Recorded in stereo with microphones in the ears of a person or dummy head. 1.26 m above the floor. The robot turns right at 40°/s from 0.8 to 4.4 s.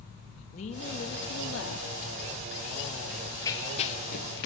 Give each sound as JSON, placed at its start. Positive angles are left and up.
{"t": 0.5, "sound": "a woman speaking", "azimuth_deg": 40, "distance_m": 2.5}
{"t": 3.1, "sound": "running footsteps", "side_deg": -5, "distance_m": 1.9}